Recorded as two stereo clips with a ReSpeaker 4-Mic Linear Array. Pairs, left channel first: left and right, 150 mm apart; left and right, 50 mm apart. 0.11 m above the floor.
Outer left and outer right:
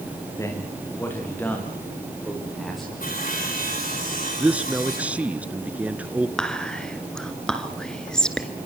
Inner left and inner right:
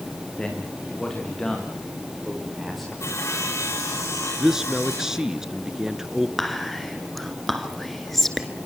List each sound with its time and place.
0.4 s a man speaking: 20° left (ahead or behind), 10 m; by 2.9 s centre (ahead or behind), 9 m
3.0 s sawing: 70° left (ahead or behind), 9.5 m
4.4 s a man speaking: 10° right (ahead or behind), 1.1 m
6.4 s whispering: 5° left (ahead or behind), 1.9 m